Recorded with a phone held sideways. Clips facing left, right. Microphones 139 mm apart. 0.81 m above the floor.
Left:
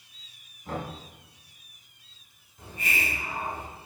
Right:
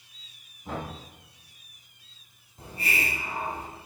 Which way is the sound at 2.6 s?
35° right (ahead or behind).